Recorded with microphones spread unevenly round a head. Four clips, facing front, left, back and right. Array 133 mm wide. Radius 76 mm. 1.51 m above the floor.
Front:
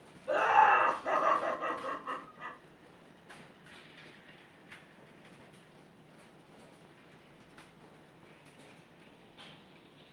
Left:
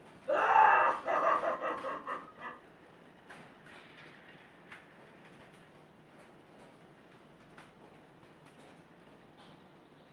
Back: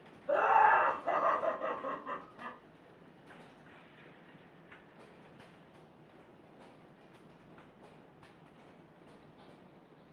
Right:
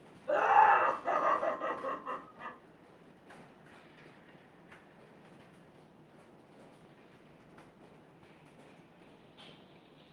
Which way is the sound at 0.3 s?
25° right.